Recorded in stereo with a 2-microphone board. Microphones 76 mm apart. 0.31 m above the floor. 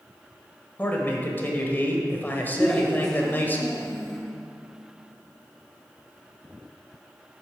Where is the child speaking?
10° left (ahead or behind), 2.5 m.